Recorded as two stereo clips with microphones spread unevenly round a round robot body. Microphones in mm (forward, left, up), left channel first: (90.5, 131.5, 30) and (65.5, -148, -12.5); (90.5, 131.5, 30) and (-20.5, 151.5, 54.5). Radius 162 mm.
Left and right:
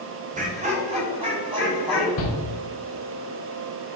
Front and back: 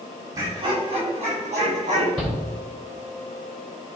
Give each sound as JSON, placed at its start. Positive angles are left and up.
{"t": 0.3, "sound": "laughter", "azimuth_deg": -125, "distance_m": 1.2}
{"t": 2.2, "sound": "a shout", "azimuth_deg": 70, "distance_m": 2.0}